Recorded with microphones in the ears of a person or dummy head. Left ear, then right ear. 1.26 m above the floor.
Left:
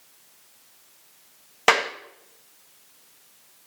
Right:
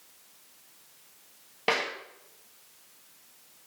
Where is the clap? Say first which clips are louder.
Left 8 dB; 45° left (ahead or behind), 1.8 m.